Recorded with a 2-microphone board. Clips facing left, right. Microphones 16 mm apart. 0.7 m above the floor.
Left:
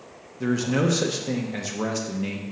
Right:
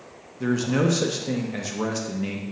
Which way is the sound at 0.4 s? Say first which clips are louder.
Right 1 dB; 5° left (ahead or behind).